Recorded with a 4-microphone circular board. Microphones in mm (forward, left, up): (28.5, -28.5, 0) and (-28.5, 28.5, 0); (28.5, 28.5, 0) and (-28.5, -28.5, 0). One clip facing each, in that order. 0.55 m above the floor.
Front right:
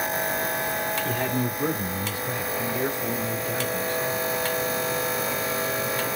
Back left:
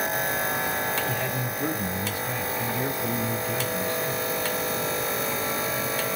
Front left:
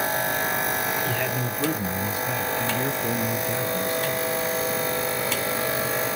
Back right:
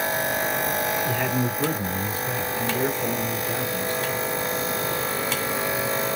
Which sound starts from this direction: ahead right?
A man speaking, at 1.1 s.